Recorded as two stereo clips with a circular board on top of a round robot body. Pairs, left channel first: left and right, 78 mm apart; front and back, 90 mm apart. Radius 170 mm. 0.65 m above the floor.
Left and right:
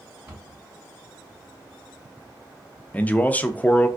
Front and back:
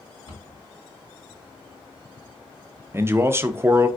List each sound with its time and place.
0.3 s a cupboard door: 35° right, 1.8 m
2.9 s a man speaking: 140° left, 0.5 m